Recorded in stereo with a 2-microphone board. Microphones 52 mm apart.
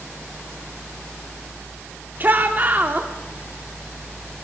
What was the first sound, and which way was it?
A shout, 35° right (ahead or behind).